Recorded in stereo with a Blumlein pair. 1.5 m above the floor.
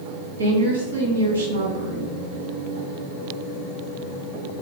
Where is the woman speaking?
70° right, 1.3 m.